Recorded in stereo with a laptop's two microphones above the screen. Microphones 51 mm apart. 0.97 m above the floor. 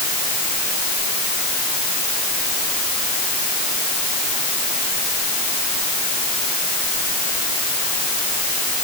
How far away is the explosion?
I don't hear an explosion.